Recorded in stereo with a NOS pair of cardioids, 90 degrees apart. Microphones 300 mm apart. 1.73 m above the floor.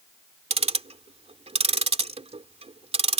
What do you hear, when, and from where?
0.5 s ticking: 20° right